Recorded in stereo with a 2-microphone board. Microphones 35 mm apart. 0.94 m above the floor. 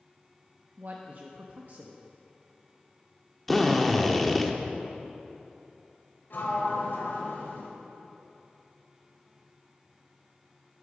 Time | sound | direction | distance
0.8 | a man speaking | 55° right (ahead or behind) | 0.8 m
3.5 | a drill | 5° left (ahead or behind) | 0.9 m
6.3 | a sliding door | 75° left (ahead or behind) | 2 m